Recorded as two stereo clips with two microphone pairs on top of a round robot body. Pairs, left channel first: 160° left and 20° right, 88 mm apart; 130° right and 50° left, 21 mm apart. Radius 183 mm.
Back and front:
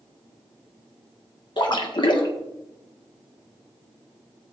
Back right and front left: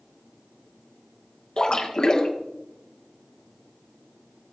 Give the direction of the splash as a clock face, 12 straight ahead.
6 o'clock.